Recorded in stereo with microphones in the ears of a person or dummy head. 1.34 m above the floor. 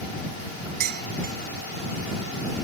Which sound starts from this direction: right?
Dishes clattering, at 0.8 s.